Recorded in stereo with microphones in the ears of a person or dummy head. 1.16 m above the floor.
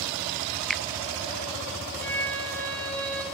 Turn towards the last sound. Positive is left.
turn(degrees=5)  # may be behind; listen again after turning